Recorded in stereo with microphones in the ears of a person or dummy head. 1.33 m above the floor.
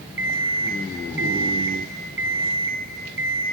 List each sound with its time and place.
0.2 s an alarm clock: 10° right (ahead or behind), 5 m